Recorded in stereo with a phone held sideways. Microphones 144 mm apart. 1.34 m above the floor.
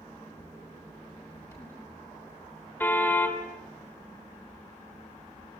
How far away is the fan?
About 8.5 m.